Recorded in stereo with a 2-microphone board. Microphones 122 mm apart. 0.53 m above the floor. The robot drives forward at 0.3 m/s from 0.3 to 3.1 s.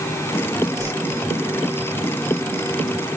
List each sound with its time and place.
0.8 s a whoosh: 25° right (ahead or behind), 5.5 m